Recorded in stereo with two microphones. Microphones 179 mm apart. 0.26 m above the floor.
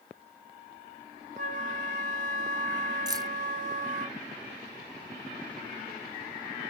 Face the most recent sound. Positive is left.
turn(degrees=-20)  # may be behind; listen again after turning